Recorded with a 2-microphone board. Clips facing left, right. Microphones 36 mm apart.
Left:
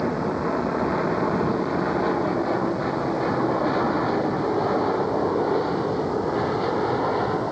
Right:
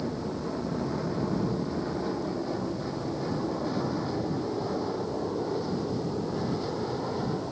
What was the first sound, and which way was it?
An aircraft, 50° left (ahead or behind).